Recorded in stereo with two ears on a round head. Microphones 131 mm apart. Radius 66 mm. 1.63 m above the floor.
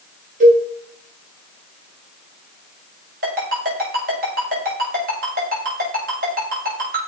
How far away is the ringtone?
About 6.5 m.